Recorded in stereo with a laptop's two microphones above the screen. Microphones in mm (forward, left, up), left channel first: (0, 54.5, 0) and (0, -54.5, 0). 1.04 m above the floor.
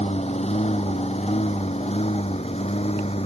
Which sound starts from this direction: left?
A lawn mower, at 0.0 s.